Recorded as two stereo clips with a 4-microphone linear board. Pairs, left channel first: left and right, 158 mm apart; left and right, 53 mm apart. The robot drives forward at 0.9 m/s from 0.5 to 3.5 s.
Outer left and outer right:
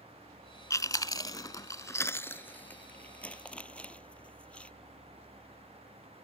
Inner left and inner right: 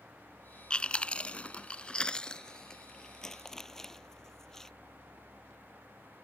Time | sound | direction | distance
0.7 | chewing | 20° left (ahead or behind) | ?